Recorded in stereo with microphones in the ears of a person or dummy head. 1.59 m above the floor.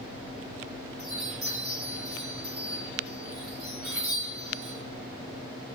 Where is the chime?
50° right (ahead or behind), 1.6 m.